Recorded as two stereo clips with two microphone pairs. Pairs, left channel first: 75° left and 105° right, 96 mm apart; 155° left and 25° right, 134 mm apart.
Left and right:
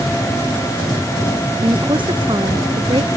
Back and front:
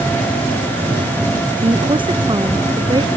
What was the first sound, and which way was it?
A woman speaking, 75° right.